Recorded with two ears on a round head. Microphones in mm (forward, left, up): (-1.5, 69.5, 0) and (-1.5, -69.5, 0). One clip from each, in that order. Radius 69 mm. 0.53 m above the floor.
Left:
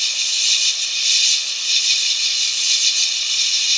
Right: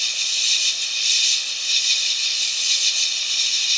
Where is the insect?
15° left (ahead or behind).